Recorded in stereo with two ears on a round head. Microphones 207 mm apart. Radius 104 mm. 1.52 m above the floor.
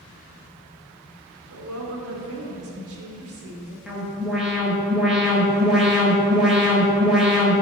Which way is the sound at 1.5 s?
65° right (ahead or behind).